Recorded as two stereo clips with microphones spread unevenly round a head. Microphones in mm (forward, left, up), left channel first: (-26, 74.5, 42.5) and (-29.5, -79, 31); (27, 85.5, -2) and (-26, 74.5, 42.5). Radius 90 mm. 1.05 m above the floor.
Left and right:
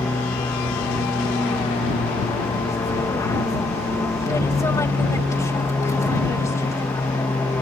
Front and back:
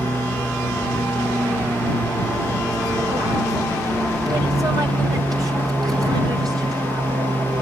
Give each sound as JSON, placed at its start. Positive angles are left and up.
{"t": 0.0, "sound": "an aircraft", "azimuth_deg": 155}